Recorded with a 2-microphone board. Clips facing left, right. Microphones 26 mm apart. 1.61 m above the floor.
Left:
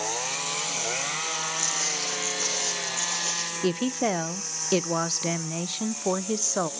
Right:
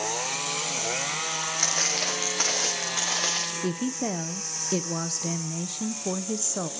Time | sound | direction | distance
1.6 | footsteps | 55° right (ahead or behind) | 5 m
3.6 | a woman speaking | 35° left (ahead or behind) | 0.6 m